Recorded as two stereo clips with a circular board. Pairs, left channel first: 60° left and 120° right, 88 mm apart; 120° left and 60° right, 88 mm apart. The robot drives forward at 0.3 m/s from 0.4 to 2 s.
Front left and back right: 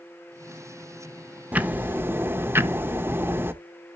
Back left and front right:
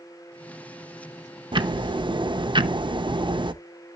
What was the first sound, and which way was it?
Ticking, 50° right.